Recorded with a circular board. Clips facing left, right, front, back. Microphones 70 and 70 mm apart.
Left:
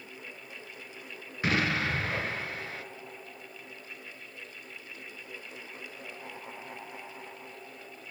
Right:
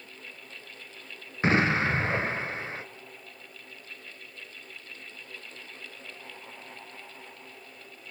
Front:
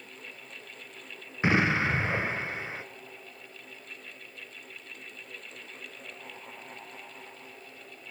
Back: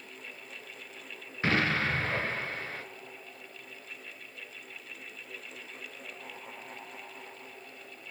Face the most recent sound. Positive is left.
turn(degrees=-60)